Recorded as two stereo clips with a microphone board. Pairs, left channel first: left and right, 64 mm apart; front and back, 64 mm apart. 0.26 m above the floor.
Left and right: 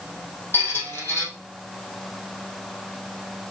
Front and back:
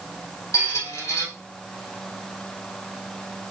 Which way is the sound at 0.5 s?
40° left.